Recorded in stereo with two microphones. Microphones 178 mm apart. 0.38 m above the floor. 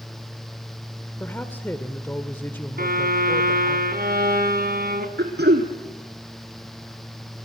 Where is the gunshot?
No gunshot in this recording.